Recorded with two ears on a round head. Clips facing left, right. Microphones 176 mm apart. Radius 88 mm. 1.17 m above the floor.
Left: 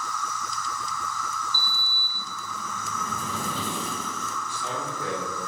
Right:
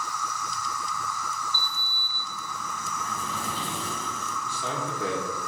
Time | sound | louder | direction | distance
0.0 | an insect | left 1 dB | 10° right (ahead or behind) | 1.2 m
1.5 | a sliding door | even | 85° left | 0.9 m
4.5 | a man speaking | right 3 dB | 65° right (ahead or behind) | 1.7 m